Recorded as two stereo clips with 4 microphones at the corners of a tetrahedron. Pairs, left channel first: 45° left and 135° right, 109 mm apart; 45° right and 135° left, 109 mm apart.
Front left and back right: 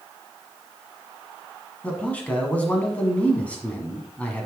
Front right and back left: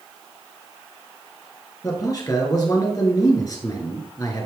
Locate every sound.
1.8 s a man speaking: 25° right, 1.5 m